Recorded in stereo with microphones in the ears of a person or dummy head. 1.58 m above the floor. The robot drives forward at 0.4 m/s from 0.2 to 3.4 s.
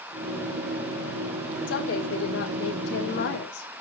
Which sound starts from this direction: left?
A woman speaking, at 1.7 s.